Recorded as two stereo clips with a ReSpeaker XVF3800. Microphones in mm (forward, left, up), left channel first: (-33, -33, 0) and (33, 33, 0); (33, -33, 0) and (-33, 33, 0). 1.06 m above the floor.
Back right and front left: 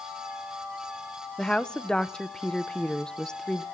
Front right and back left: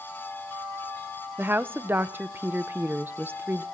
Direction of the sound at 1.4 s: 155° left.